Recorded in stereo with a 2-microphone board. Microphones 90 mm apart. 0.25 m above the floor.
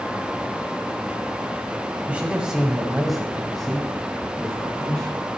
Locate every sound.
2.1 s a man speaking: 15° right (ahead or behind), 1.0 m; by 5.2 s 10° left (ahead or behind), 2 m